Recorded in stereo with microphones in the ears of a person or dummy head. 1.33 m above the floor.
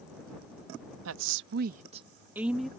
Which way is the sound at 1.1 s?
80° right.